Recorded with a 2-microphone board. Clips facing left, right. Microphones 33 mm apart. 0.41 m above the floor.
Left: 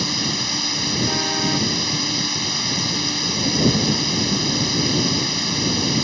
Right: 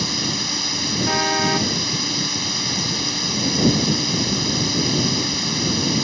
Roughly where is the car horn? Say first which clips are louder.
Right 6 dB; right.